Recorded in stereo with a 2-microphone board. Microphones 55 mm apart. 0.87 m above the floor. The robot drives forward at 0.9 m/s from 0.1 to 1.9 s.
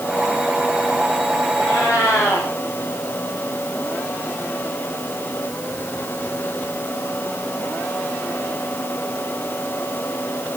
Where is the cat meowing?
60° left (ahead or behind), 9.5 m.